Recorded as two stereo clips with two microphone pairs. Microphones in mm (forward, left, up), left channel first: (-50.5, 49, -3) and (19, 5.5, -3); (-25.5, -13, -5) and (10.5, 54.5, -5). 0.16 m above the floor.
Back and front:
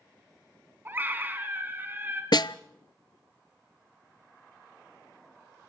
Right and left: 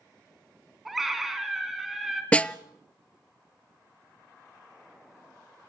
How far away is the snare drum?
About 0.5 m.